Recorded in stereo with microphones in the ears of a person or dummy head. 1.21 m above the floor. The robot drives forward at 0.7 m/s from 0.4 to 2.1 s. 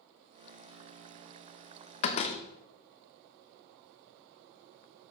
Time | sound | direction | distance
2.0 | a door slam | 40° left (ahead or behind) | 0.7 m